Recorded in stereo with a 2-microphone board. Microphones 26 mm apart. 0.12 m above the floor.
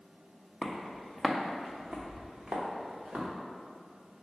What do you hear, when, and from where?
0.6 s footsteps: 10° left (ahead or behind), 0.8 m; by 3.3 s 45° right (ahead or behind), 1.8 m